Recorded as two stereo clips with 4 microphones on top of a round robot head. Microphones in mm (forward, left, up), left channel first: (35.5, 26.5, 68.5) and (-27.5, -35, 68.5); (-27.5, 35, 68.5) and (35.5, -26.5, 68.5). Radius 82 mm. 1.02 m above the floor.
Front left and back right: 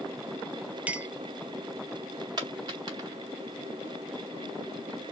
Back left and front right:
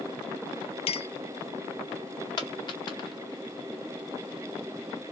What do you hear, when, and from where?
0.9 s a clink: 150° left, 0.6 m
2.4 s a dropped coin: straight behind, 1.4 m